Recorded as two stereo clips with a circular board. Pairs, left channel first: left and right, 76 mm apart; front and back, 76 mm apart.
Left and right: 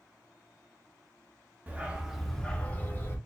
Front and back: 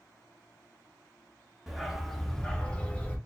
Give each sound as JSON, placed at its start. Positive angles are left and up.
{"t": 1.7, "sound": "a dog barking", "azimuth_deg": -105, "distance_m": 0.7}